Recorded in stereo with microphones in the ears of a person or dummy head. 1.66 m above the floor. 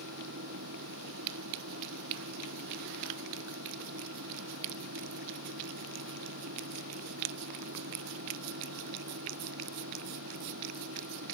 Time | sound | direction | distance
0.0 | a fan | 65° right (ahead or behind) | ?